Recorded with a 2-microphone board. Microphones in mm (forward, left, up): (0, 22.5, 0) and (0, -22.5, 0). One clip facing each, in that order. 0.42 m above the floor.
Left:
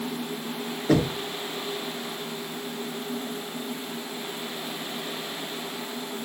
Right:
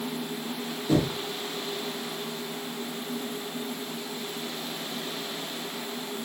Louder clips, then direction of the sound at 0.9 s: Left 2 dB; 50° left (ahead or behind).